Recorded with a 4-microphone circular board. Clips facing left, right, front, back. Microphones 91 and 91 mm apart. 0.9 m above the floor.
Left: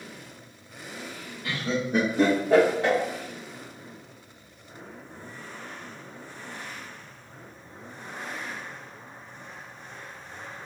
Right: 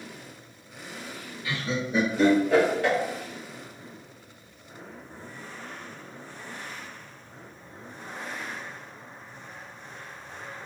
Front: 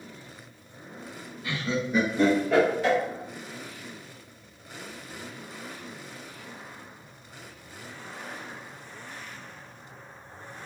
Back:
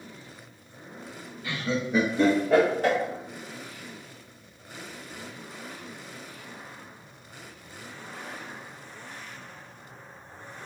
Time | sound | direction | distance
1.4 | laughter | 85° left | 1.3 m